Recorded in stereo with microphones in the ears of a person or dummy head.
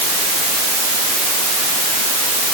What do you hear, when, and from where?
Only background noise.